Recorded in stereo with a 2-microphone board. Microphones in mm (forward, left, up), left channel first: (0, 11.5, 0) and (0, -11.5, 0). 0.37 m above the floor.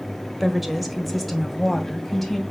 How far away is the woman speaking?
About 1.5 m.